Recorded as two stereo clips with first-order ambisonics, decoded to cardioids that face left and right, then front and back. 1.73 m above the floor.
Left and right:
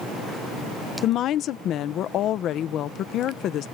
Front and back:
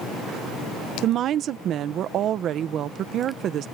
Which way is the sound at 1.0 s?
135° left.